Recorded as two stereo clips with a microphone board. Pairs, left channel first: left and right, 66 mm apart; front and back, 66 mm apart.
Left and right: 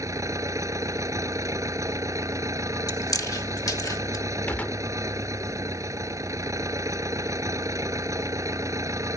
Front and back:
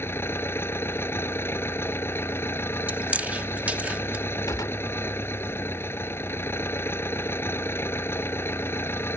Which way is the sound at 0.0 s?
55° right.